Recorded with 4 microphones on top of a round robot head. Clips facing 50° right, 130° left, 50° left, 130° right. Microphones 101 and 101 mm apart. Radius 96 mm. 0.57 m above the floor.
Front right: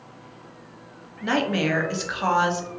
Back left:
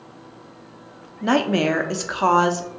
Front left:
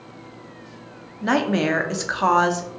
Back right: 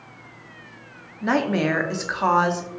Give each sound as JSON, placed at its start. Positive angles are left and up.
{"t": 1.2, "sound": "a woman speaking", "azimuth_deg": 135, "distance_m": 0.7}